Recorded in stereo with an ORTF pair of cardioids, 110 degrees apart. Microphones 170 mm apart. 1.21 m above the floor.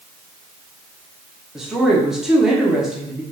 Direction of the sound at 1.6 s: 5° right.